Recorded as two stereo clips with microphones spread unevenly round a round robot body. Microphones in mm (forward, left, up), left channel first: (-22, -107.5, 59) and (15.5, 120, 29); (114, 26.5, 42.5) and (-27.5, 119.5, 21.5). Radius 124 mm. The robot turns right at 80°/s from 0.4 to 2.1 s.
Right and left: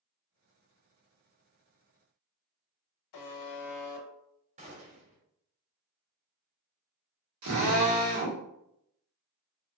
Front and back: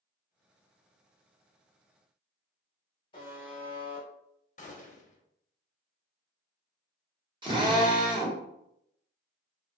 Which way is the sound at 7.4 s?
85° left.